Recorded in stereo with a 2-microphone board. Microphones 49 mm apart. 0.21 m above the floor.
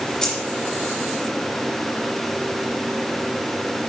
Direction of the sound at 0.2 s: 10° left (ahead or behind).